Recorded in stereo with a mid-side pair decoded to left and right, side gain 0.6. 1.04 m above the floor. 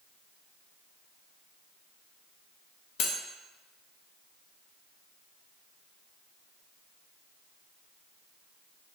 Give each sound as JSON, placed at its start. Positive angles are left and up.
{"t": 3.0, "sound": "cutlery clinking", "azimuth_deg": 65, "distance_m": 0.6}